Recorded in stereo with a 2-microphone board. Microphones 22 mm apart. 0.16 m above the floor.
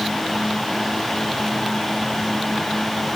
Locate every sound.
Only background noise.